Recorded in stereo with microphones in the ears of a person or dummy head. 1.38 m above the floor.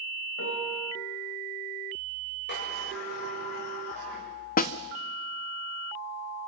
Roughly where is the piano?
Left.